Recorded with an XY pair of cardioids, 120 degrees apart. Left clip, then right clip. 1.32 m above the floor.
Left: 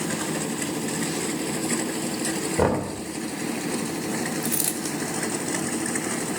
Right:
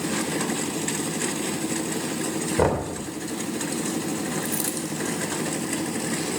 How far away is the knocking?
About 3 m.